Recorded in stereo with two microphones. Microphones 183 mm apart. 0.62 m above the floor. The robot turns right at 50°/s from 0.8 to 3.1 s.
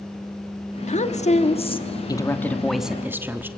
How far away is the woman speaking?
About 1.1 m.